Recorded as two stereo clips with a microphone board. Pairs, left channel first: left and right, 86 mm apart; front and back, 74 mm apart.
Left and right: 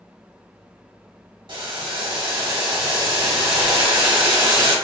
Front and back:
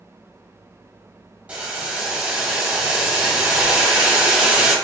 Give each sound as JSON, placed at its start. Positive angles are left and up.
{"t": 1.5, "sound": "boiling", "azimuth_deg": -110, "distance_m": 1.7}